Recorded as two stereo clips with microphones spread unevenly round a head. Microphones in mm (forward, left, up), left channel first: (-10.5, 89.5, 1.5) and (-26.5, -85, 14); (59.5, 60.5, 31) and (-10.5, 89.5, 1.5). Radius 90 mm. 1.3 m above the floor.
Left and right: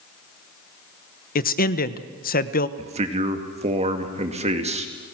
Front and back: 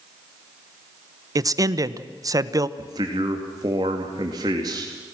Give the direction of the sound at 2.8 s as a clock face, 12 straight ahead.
5 o'clock.